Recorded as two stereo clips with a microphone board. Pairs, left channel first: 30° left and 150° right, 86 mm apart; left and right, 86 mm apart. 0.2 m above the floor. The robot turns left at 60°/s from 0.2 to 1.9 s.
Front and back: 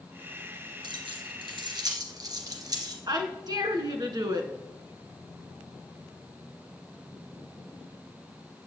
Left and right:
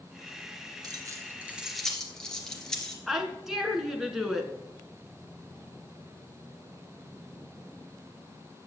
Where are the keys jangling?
125° right, 2 m; by 3.0 s 170° left, 2 m.